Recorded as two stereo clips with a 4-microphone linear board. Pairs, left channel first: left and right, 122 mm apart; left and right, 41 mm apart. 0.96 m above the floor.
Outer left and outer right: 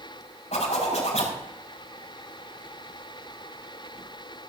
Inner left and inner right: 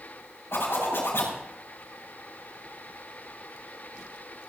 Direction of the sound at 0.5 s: 75° left (ahead or behind).